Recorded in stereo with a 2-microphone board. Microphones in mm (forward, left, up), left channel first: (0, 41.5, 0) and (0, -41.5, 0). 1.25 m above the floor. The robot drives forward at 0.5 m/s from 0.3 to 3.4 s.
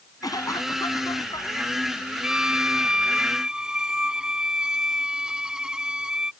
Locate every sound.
0.2 s a cough: 45° left (ahead or behind); by 1.7 s 50° left (ahead or behind)
2.2 s a violin: 10° right (ahead or behind)